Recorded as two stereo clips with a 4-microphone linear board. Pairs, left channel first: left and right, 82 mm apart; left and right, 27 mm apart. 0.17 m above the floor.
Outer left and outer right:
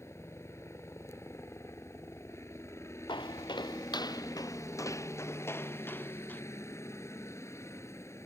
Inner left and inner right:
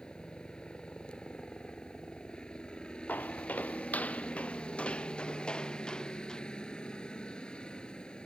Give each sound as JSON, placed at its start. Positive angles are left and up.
{"t": 0.0, "sound": "a helicopter", "side_deg": 35}
{"t": 3.1, "sound": "footsteps", "side_deg": 80}